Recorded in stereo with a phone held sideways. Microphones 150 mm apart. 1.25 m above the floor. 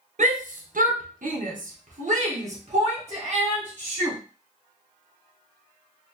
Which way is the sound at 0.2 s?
60° right (ahead or behind).